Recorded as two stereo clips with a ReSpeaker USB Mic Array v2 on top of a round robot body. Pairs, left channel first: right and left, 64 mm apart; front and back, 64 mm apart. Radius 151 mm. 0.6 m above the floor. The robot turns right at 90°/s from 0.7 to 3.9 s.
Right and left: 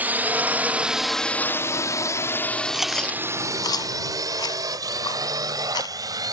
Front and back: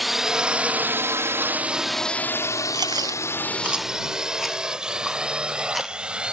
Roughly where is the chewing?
Behind.